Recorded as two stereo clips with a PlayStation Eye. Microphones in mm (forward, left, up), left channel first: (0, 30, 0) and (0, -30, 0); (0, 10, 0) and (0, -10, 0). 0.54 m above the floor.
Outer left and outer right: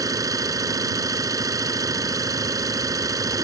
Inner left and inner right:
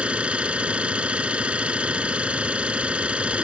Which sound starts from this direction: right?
An engine running, at 0.0 s.